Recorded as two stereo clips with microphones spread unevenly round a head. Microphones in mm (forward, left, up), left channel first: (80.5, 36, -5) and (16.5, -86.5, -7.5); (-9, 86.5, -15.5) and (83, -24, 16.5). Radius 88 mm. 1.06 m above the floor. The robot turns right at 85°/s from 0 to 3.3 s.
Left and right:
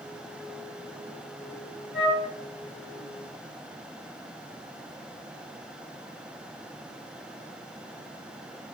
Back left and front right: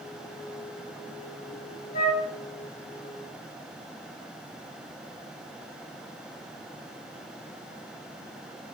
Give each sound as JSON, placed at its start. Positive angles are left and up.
{"t": 1.9, "sound": "a flute", "azimuth_deg": 180, "distance_m": 2.5}